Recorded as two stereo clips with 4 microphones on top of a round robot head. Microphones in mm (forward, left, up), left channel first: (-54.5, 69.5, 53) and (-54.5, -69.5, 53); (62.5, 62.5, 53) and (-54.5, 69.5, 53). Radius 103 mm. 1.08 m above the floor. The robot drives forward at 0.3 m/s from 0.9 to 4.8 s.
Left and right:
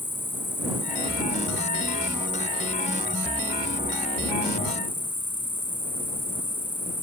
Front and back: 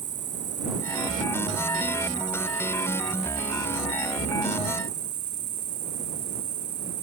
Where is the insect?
165° left.